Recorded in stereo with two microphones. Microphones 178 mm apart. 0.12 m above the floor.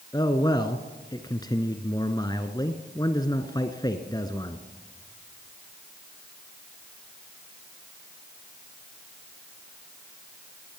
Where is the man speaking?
25° left (ahead or behind), 1.3 m.